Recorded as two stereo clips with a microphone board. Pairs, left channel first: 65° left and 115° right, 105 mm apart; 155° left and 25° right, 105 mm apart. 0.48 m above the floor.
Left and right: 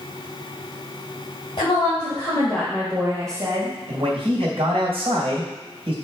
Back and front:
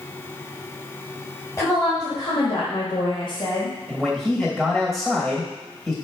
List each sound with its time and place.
1.6 s a woman speaking: 100° left, 2.5 m; by 3.8 s 155° right, 2 m
3.9 s a man speaking: 115° right, 2.5 m